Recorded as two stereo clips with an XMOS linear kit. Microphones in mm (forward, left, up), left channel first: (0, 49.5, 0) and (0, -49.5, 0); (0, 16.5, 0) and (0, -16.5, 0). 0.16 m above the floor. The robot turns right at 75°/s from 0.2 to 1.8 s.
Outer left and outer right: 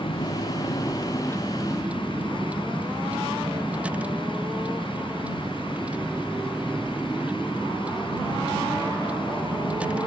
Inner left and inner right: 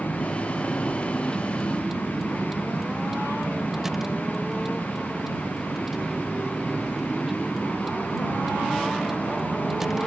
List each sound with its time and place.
0.0 s a vehicle: 75° left (ahead or behind); by 10.1 s 10° right (ahead or behind)